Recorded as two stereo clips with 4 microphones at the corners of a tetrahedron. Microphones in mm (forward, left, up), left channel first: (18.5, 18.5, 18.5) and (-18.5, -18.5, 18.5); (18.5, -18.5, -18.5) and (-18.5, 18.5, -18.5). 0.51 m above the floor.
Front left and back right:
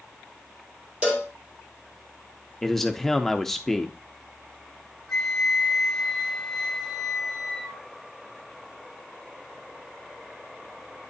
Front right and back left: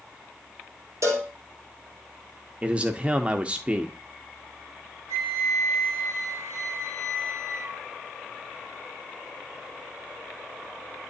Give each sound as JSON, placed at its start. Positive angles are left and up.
{"t": 1.0, "sound": "a cowbell", "azimuth_deg": 155, "distance_m": 2.5}
{"t": 2.6, "sound": "a man speaking", "azimuth_deg": 125, "distance_m": 0.7}
{"t": 5.1, "sound": "a flute", "azimuth_deg": 135, "distance_m": 1.7}